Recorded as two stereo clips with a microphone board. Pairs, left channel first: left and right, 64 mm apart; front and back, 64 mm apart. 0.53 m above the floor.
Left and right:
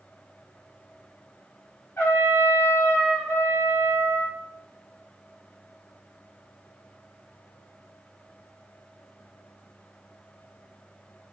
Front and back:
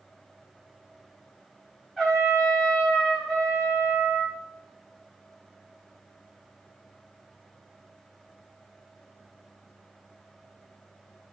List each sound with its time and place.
2.0 s a trumpet: 85° left, 1.3 m